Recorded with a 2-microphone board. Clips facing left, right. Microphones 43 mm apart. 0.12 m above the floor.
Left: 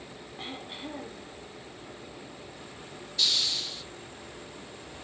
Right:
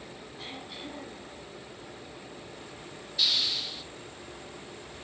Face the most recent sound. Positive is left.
turn(degrees=-10)  # may be behind; listen again after turning